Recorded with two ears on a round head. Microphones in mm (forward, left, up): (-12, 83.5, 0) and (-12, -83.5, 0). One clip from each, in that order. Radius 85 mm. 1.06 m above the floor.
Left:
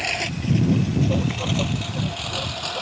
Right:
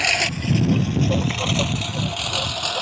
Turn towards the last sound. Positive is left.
turn(degrees=-25)  # may be behind; listen again after turning